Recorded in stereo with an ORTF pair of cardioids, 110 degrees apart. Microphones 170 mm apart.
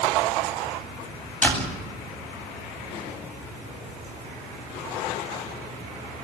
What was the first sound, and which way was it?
A door slam, 10° left.